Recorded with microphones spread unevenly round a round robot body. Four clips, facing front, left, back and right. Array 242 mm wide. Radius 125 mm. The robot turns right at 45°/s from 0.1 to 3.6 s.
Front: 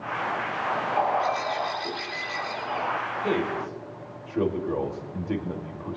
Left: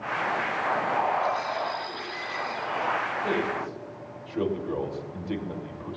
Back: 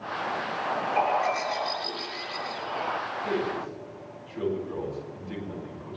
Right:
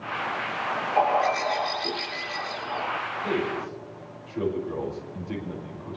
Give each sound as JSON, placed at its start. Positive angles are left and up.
{"t": 1.0, "sound": "a bird", "azimuth_deg": -110, "distance_m": 8.0}
{"t": 3.2, "sound": "a man speaking", "azimuth_deg": 5, "distance_m": 2.5}